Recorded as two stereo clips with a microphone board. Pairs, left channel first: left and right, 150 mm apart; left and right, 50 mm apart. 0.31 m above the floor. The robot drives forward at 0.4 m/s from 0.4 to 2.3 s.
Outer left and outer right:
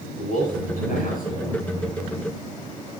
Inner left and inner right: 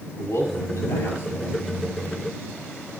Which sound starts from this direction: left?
A man speaking, at 0.2 s.